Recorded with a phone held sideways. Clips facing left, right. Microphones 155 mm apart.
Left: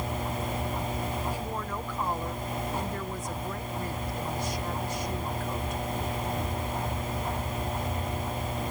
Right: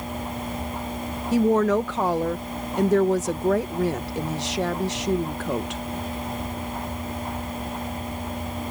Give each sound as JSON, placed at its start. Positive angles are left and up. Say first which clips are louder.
{"t": 1.3, "sound": "a woman speaking", "louder": "right 15 dB", "side_deg": -85}